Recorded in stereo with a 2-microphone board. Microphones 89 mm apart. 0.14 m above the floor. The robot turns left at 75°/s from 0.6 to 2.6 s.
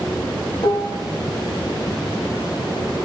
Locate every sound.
0.6 s dishes clattering: 55° left (ahead or behind), 3 m; by 1.0 s 70° left (ahead or behind), 3 m